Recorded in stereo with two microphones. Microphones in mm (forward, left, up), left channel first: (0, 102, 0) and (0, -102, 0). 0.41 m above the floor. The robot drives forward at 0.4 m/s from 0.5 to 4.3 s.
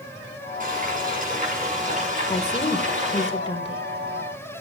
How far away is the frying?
About 8.5 m.